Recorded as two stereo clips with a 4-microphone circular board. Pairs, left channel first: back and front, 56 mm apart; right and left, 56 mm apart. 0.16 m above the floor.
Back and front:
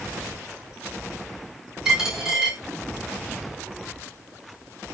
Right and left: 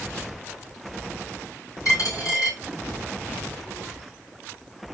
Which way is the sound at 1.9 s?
80° right.